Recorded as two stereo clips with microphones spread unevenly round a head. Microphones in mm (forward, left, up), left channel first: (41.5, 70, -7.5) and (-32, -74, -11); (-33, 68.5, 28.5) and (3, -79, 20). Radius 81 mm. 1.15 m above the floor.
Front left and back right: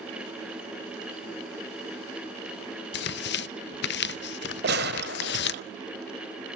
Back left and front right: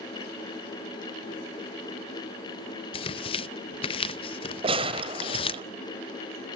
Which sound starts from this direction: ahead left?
Tearing paper, at 2.9 s.